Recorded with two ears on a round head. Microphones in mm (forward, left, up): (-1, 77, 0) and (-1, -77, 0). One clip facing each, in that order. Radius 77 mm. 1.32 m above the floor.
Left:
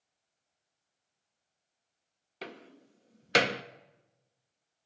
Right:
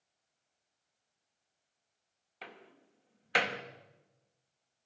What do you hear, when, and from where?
2.4 s a door slam: 50° left (ahead or behind), 1.0 m